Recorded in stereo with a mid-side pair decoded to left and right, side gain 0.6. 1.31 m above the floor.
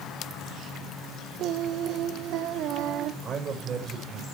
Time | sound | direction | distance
1.4 | singing | 65° right | 1.2 m
3.2 | a man speaking | 40° right | 4.5 m